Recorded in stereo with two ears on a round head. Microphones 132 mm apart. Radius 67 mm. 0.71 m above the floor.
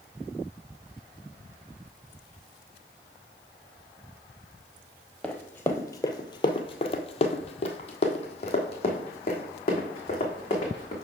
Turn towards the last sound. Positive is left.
turn(degrees=40)  # may be behind; listen again after turning